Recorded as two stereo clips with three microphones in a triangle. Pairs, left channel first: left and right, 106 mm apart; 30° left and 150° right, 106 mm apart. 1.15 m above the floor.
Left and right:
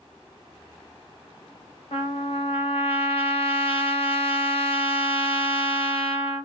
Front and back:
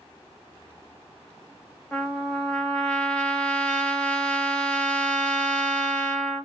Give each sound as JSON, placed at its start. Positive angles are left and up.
{"t": 1.9, "sound": "a trumpet", "azimuth_deg": 110, "distance_m": 0.8}